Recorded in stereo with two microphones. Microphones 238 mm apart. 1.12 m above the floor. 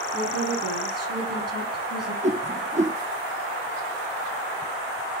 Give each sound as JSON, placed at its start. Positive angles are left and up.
{"t": 0.1, "sound": "a woman speaking", "side_deg": -80, "distance_m": 9.0}
{"t": 2.2, "sound": "a whoosh", "side_deg": -30, "distance_m": 0.8}